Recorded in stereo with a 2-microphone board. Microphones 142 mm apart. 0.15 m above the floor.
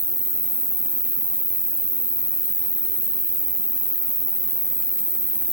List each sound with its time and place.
0.0 s an insect: 50° right (ahead or behind), 0.8 m